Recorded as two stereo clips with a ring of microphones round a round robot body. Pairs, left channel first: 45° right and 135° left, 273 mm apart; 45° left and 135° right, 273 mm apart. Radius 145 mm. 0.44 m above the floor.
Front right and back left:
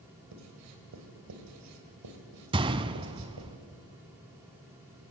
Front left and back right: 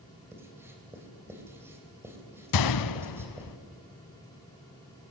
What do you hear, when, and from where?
0.3 s writing: 145° left, 2.5 m
2.5 s a gunshot: 65° left, 0.6 m